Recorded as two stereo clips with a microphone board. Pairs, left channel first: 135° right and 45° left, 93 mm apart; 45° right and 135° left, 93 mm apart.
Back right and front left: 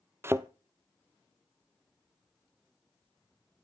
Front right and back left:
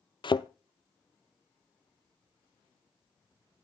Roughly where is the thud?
Ahead.